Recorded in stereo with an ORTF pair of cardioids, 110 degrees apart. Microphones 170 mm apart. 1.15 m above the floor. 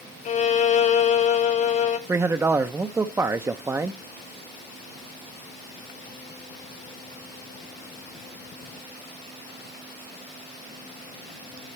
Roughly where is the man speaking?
Ahead.